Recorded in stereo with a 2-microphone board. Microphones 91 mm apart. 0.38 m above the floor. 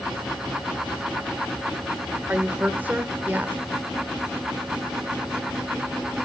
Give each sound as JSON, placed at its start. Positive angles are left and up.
{"t": 2.3, "sound": "a woman speaking", "side_deg": -20, "distance_m": 0.9}